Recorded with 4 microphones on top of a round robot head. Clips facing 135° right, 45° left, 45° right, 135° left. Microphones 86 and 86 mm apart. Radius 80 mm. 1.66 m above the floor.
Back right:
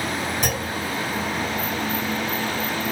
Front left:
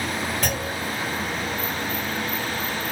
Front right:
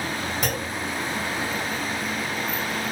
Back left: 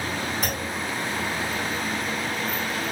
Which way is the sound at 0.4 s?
60° right.